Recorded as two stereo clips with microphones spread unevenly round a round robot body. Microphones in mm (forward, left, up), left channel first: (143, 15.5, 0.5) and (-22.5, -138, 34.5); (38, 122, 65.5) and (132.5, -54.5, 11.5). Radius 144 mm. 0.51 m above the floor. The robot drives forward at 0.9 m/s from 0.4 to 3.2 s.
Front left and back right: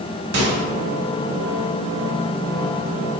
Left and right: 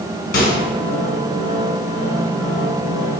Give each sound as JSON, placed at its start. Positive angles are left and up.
{"t": 0.3, "sound": "a microwave", "azimuth_deg": 175, "distance_m": 1.1}